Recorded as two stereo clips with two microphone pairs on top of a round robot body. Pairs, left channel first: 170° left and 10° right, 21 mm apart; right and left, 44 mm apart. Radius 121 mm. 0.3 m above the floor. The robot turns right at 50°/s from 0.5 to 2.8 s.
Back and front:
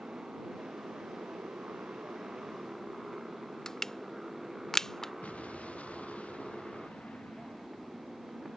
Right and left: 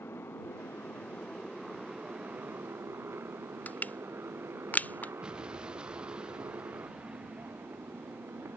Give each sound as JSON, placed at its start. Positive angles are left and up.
{"t": 0.0, "sound": "a motorcycle", "azimuth_deg": -55}
{"t": 3.7, "sound": "crushing", "azimuth_deg": -130}
{"t": 5.2, "sound": "an explosion", "azimuth_deg": 165}